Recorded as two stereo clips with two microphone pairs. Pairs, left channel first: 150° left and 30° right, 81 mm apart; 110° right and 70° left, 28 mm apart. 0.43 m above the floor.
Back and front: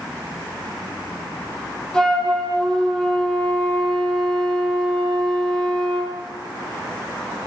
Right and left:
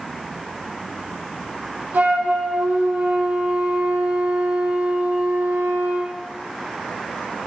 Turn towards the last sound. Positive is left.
turn(degrees=70)